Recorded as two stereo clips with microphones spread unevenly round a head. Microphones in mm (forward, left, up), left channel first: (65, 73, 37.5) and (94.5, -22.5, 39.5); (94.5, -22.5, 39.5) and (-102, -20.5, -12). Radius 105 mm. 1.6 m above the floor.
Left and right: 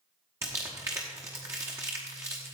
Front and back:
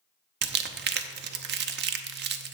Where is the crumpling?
145° right, 0.8 m.